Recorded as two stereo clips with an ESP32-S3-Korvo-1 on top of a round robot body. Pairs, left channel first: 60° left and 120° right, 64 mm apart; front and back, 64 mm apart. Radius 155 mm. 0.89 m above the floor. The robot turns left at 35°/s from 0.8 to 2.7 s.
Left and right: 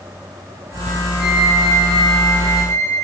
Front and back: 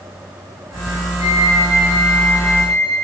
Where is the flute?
155° left, 4 m; by 3.0 s 100° left, 4 m.